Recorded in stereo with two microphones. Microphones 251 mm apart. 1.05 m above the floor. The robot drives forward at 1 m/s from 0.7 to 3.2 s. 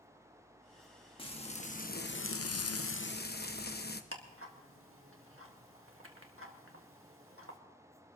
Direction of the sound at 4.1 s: 55° right (ahead or behind).